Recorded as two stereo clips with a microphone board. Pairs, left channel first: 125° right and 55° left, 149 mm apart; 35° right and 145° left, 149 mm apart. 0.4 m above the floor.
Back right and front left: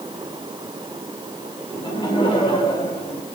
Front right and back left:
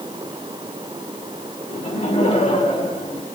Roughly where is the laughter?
Right.